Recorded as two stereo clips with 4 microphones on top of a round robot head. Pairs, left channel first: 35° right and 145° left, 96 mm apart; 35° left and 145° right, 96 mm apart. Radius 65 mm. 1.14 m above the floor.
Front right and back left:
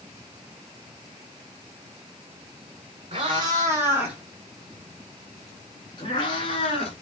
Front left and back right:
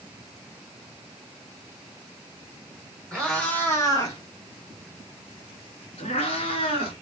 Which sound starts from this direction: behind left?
A cat meowing, at 3.1 s.